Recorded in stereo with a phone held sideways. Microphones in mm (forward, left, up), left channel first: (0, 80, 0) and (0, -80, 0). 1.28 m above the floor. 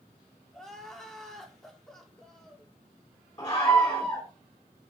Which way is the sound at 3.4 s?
25° left (ahead or behind).